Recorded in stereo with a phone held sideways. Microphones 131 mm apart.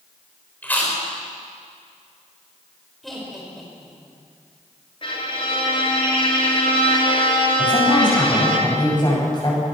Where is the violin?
40° left (ahead or behind), 4 m.